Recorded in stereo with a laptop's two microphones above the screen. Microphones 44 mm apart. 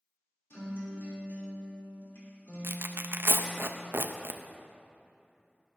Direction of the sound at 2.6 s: 60° right (ahead or behind).